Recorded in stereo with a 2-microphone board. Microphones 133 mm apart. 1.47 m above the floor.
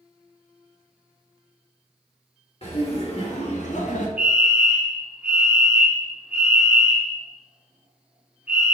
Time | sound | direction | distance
2.6 | laughter | 50° left (ahead or behind) | 1.7 m
4.2 | a fire alarm | 10° right (ahead or behind) | 0.8 m